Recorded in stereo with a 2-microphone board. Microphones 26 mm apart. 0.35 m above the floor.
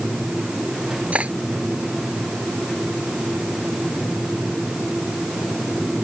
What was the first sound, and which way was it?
Cutlery clinking, 60° right (ahead or behind).